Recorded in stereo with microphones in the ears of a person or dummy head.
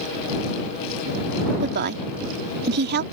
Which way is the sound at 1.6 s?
50° right (ahead or behind).